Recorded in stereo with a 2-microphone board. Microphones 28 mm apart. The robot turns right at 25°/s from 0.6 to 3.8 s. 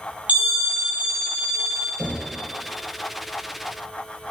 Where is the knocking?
35° right (ahead or behind), 3 m; by 2.3 s 30° right (ahead or behind), 3 m.